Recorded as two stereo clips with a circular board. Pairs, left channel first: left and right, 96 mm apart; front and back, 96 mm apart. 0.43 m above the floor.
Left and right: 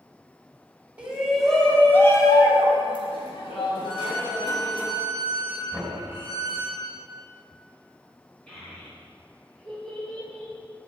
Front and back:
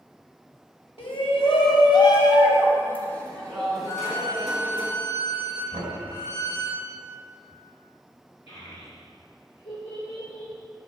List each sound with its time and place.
1.0 s a shout: 15° right, 2 m; by 4.8 s 95° left, 4 m
3.8 s a violin: 115° left, 4 m
5.7 s knocking: 150° left, 2.5 m
8.5 s a child speaking: 15° left, 3.5 m